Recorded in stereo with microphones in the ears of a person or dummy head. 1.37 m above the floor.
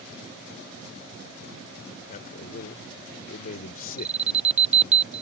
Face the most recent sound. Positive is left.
turn(degrees=-40)  # may be behind; listen again after turning